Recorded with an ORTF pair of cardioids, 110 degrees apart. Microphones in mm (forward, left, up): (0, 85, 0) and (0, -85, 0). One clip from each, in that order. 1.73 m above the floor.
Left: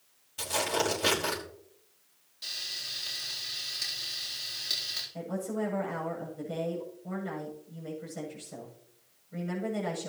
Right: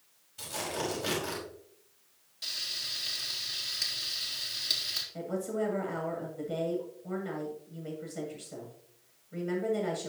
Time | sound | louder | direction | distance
0.4 | tearing paper | left 6 dB | 40° left | 5.5 m
2.4 | frying | right 1 dB | 15° right | 4 m
5.1 | a woman speaking | right 1 dB | 5° right | 8 m